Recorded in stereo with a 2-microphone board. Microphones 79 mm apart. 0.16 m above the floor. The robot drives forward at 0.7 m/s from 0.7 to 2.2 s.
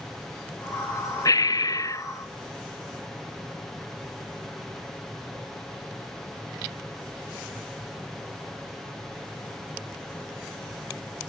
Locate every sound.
1.2 s breathing: 45° left (ahead or behind), 0.5 m; by 2.0 s 35° left (ahead or behind), 0.6 m